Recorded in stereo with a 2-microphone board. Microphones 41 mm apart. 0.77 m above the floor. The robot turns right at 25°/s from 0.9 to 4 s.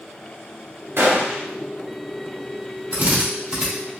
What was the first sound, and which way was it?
A gunshot, 70° right (ahead or behind).